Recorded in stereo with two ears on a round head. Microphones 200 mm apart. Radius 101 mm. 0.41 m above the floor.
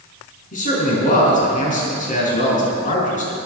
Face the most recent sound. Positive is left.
turn(degrees=40)  # may be behind; listen again after turning